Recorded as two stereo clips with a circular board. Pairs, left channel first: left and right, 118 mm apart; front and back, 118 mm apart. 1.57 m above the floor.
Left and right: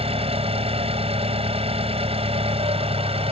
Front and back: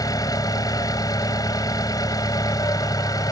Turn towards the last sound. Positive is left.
turn(degrees=-55)